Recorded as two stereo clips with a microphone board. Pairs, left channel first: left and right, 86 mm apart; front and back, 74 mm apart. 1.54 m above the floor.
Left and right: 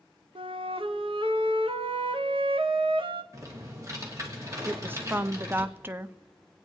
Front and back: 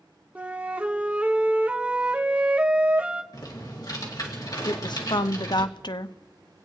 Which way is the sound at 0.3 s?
110° right.